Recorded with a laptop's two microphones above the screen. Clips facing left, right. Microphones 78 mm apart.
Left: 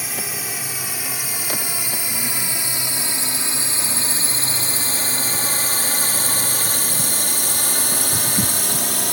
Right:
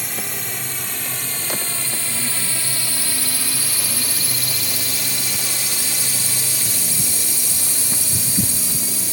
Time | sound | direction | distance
0.0 | a drone | 5° left (ahead or behind) | ?